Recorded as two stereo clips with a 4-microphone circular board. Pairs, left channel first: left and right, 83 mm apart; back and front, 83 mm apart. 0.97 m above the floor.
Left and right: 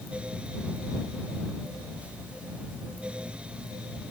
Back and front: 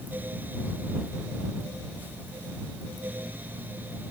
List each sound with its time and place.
Only background noise.